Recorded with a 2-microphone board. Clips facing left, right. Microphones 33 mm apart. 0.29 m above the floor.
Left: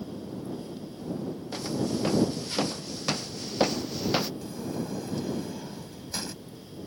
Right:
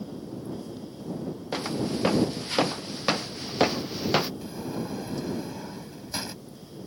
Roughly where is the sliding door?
Right.